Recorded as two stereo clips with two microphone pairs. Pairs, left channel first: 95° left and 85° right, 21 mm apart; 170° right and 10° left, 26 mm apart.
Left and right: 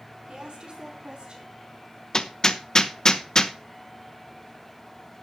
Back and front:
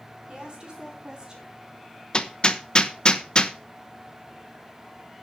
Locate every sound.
0.3 s a woman speaking: 45° right, 5 m; by 1.5 s 55° right, 4.5 m
2.1 s hammering: 145° left, 0.9 m